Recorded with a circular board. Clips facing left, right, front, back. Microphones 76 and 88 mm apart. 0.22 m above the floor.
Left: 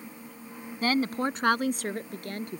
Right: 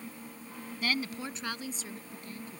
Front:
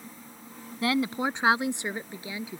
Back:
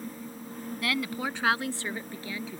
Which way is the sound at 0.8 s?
55° left.